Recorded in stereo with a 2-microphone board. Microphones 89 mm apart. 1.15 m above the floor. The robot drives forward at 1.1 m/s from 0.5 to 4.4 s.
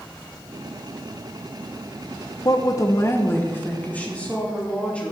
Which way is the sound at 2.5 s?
45° left (ahead or behind).